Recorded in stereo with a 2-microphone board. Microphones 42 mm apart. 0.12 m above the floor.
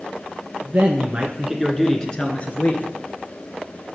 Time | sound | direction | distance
0.6 | a man speaking | 45° right (ahead or behind) | 2.5 m